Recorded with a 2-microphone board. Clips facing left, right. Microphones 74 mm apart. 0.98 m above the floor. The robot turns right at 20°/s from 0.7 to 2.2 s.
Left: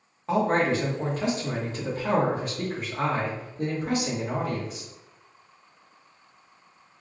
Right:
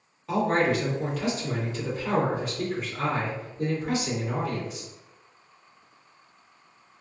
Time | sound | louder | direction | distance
0.3 | a man speaking | left 1 dB | 35° left | 1.2 m